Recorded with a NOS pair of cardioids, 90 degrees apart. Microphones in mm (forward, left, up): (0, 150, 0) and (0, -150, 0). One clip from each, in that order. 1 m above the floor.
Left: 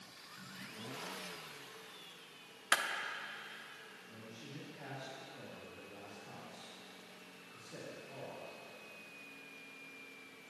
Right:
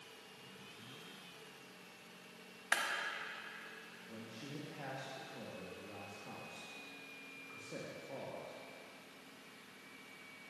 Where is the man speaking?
50° right, 1.5 m.